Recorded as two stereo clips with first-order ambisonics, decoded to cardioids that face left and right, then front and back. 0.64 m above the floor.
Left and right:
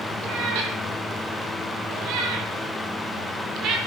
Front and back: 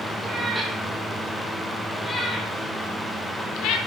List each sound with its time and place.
0.2 s a cat meowing: 105° right, 5.5 m; by 3.8 s 40° right, 4 m